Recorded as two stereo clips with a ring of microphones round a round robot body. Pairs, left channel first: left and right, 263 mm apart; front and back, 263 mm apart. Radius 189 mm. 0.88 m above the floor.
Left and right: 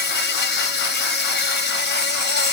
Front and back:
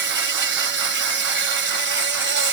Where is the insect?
135° left.